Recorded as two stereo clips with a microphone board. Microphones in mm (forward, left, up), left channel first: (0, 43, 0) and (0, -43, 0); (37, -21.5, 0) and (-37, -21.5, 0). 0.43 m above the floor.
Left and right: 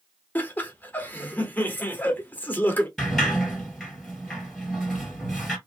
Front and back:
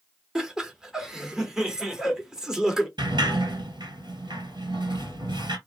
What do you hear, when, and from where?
0.3 s laughter: 110° left, 0.9 m
3.0 s a sliding door: straight behind, 1.9 m